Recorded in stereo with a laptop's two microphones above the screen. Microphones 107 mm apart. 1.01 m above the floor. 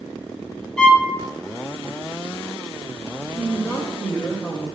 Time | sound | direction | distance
0.8 | a violin | 10° left (ahead or behind) | 0.8 m
3.4 | a woman speaking | 5° left (ahead or behind) | 0.7 m